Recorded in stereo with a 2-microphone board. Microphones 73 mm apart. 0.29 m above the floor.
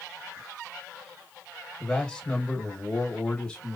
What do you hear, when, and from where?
1.8 s a man speaking: 10° left (ahead or behind), 1.2 m